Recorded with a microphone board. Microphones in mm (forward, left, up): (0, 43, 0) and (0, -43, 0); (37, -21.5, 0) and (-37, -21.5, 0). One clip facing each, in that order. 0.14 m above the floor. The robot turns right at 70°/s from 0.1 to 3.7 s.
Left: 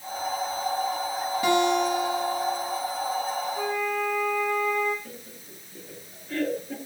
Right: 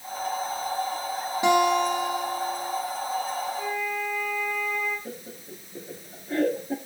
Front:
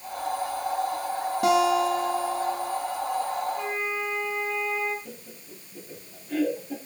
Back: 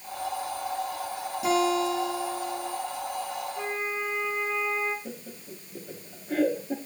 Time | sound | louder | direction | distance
1.4 | a guitar | right 2 dB, front 3 dB | 20° right | 5.5 m
3.6 | a flute | left 2 dB, front 2 dB | 110° left | 6 m
5.0 | laughter | right 5 dB, back 3 dB | 150° right | 2.5 m